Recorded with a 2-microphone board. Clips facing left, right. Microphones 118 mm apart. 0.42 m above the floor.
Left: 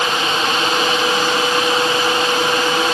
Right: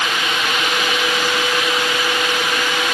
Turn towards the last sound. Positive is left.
No sound to turn to.